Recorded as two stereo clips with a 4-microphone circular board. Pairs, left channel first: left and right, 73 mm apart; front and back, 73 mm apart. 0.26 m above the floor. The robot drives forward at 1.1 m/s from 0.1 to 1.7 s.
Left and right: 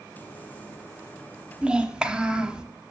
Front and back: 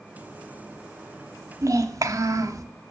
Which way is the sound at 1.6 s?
160° right.